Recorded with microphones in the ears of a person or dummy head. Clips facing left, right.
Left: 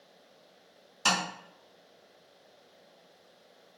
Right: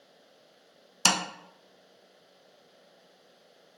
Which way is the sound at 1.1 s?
60° right (ahead or behind).